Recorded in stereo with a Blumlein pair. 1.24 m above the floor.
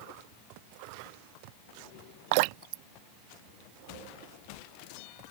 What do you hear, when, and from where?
2.3 s dripping: 45° right